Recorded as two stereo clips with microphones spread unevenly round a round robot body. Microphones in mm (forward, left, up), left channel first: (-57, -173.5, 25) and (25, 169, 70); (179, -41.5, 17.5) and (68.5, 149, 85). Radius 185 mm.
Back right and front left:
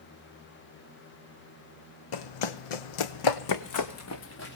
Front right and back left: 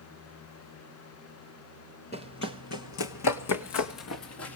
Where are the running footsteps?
130° right, 1.0 m; by 4.6 s 40° right, 1.5 m.